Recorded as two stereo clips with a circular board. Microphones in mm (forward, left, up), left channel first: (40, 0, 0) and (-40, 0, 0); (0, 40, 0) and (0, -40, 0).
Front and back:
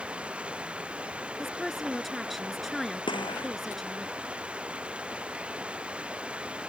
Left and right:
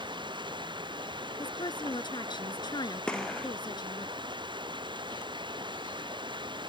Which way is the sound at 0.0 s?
100° right.